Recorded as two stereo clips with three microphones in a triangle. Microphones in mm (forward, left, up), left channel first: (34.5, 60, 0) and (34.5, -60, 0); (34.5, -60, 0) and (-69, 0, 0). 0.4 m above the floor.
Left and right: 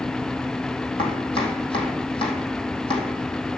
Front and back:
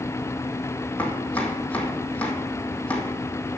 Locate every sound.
1.0 s chopping: 50° left, 2 m